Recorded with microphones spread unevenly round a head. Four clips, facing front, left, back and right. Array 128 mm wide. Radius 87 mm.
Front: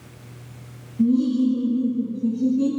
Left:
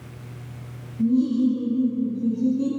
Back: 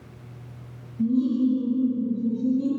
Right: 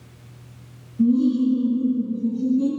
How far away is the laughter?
About 3 m.